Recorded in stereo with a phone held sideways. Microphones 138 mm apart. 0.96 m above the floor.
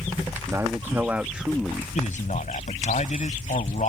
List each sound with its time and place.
0.5 s a man speaking: 25° right (ahead or behind); by 1.9 s 5° left (ahead or behind)
1.9 s a man speaking: 65° left (ahead or behind)